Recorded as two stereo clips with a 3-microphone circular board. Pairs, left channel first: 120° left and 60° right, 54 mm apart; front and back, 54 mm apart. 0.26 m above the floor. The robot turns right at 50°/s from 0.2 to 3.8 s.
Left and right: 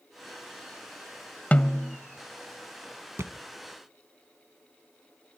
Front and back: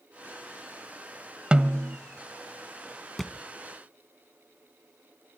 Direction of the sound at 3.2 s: 85° right.